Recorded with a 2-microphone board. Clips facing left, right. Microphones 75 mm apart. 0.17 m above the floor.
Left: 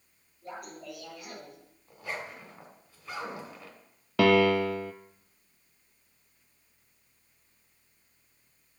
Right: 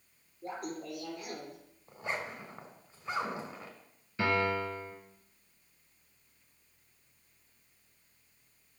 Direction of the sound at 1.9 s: 25° right (ahead or behind).